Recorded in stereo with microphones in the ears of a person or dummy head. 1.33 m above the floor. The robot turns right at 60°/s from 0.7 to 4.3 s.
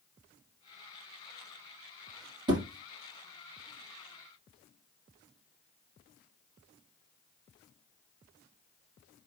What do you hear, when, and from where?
2.5 s a thud: 25° right (ahead or behind), 2.5 m; by 2.6 s 15° right (ahead or behind), 2.5 m